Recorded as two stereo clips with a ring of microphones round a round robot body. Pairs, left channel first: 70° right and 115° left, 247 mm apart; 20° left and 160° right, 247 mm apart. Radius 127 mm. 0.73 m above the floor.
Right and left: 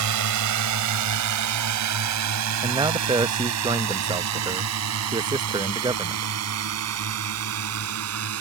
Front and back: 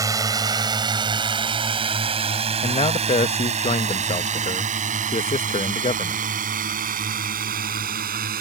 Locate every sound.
0.0 s a drone: 125° left; by 8.4 s 145° left
2.6 s a man speaking: 60° left